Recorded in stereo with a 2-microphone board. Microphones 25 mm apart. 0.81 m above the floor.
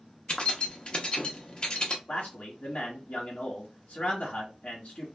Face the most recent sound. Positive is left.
turn(degrees=65)  # may be behind; listen again after turning